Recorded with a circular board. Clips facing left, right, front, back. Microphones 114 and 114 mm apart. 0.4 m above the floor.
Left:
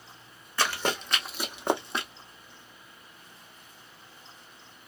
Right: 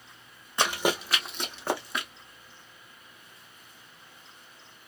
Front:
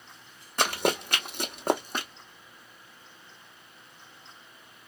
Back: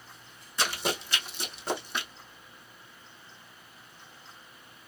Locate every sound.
0.6 s running footsteps: 20° right, 1.0 m; by 2.1 s 40° left, 0.8 m